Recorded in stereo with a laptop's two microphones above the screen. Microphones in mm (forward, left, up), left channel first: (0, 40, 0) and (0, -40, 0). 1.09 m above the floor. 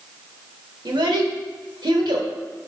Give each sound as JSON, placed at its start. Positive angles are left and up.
{"t": 0.8, "sound": "a child speaking", "side_deg": -85, "distance_m": 1.1}